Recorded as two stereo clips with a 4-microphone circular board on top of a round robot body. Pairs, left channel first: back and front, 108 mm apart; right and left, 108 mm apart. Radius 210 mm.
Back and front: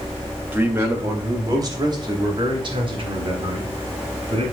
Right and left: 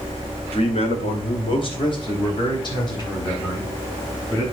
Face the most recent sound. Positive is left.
turn(degrees=-35)